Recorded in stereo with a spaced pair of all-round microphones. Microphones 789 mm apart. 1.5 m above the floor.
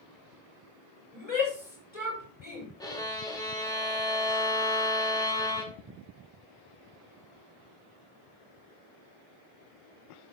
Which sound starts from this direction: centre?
A violin, at 2.8 s.